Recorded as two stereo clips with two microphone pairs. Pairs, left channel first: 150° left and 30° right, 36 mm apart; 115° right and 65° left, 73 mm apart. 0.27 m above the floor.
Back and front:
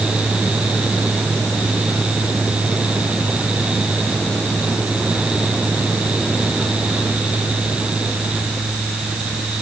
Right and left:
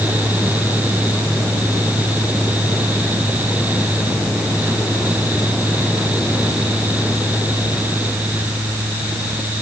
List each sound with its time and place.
Only background noise.